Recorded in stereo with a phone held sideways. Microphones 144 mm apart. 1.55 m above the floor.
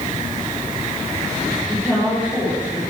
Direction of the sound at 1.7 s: 10° left (ahead or behind).